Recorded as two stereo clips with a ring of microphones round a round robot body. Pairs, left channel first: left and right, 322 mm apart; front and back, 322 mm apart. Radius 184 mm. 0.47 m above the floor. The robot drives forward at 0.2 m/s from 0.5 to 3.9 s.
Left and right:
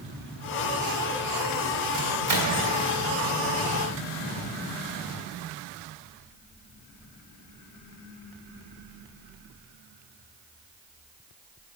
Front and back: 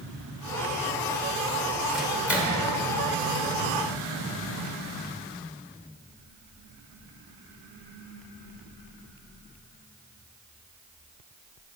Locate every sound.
1.9 s a microwave: 90° right, 1.8 m; by 2.6 s 95° right, 1.8 m